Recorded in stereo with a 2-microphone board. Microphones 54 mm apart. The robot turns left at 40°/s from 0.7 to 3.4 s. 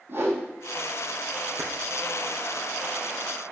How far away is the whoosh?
About 6.5 m.